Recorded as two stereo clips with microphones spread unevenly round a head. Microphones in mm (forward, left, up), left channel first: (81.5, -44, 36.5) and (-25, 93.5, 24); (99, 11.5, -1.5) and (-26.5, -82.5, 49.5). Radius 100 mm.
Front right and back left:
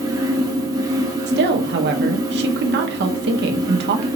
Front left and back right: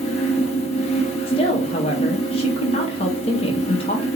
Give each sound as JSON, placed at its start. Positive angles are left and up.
{"t": 0.0, "sound": "a fan", "azimuth_deg": 80, "distance_m": 0.8}
{"t": 1.3, "sound": "a woman speaking", "azimuth_deg": 100, "distance_m": 0.9}